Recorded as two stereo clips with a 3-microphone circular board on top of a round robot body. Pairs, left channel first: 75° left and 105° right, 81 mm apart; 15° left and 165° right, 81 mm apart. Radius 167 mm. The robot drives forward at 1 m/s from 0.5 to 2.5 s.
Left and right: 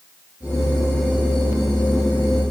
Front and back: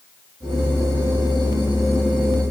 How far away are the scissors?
I don't hear scissors.